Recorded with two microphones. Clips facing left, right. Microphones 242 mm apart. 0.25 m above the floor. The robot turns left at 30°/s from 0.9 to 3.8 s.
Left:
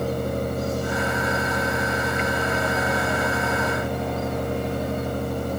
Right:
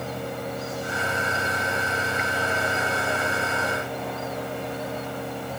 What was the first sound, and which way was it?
Only background noise.